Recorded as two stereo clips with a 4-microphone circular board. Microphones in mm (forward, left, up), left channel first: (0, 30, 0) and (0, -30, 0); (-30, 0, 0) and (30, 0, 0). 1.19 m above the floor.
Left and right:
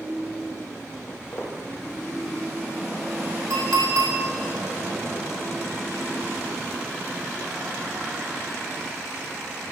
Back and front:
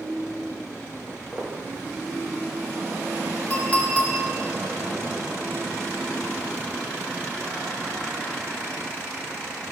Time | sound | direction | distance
1.1 | footsteps | 80° left | 1.9 m
3.5 | a clink | 115° right | 1.5 m